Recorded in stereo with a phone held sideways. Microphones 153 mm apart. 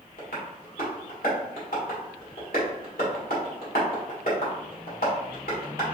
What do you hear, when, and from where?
0.2 s tapping: 75° left (ahead or behind), 1.9 m